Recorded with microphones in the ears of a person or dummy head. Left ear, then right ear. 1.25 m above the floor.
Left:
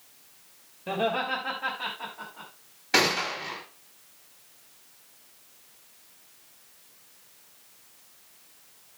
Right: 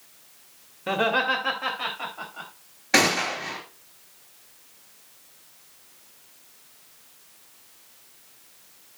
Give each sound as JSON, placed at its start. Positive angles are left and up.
{"t": 0.9, "sound": "laughter", "side_deg": -60, "distance_m": 2.0}
{"t": 2.9, "sound": "a gunshot", "side_deg": -25, "distance_m": 4.0}